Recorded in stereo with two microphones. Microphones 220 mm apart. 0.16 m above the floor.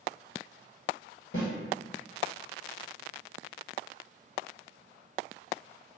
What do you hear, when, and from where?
1.3 s a snare drum: 65° left (ahead or behind), 1.6 m